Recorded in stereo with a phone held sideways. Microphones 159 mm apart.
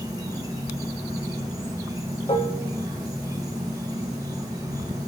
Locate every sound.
0.0 s an insect: 20° right (ahead or behind), 1.1 m
2.3 s dishes clattering: 40° left (ahead or behind), 0.7 m